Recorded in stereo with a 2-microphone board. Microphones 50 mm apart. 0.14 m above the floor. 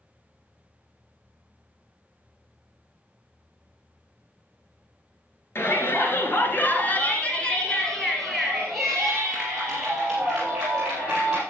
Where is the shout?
50° left (ahead or behind), 2.0 m; by 11.4 s 20° right (ahead or behind), 4.5 m.